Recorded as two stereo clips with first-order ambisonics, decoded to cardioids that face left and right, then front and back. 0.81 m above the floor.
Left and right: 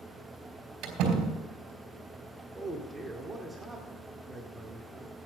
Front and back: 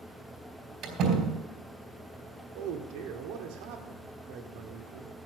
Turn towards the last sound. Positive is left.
turn(degrees=-170)